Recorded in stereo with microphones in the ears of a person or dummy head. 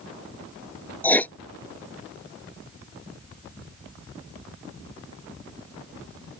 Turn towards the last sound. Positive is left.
turn(degrees=10)  # may be behind; listen again after turning